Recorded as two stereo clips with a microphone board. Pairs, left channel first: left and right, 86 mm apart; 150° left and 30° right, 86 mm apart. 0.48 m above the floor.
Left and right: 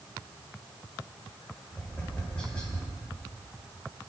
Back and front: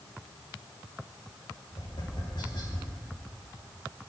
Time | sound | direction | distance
1.7 | tapping | 170° left | 5.5 m